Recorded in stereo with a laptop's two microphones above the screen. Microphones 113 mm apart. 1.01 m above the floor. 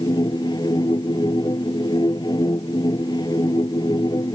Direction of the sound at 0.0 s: 40° left (ahead or behind).